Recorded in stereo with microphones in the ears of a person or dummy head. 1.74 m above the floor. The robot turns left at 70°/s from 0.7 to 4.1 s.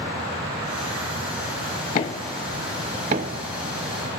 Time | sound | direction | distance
1.9 | knocking | 40° left (ahead or behind) | 1.2 m